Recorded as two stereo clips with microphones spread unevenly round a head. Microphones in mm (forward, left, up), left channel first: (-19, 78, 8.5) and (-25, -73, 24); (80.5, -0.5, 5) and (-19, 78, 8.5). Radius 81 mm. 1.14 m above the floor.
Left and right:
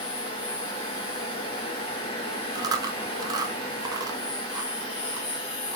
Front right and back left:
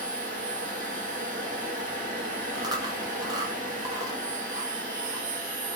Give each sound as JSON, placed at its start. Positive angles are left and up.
{"t": 0.0, "sound": "a machine running", "azimuth_deg": 140, "distance_m": 1.7}
{"t": 2.5, "sound": "chewing", "azimuth_deg": -160, "distance_m": 0.5}